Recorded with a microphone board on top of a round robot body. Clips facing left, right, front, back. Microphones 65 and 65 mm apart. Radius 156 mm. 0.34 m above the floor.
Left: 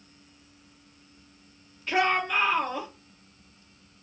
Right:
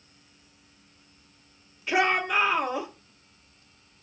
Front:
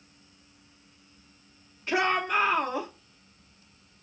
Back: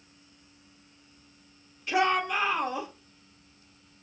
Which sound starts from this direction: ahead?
A shout, at 1.9 s.